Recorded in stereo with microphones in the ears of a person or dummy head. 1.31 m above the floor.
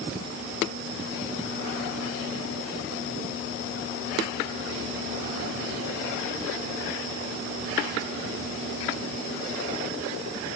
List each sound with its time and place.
Only background noise.